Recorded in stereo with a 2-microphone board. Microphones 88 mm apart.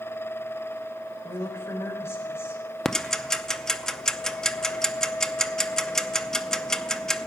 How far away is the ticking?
About 0.6 m.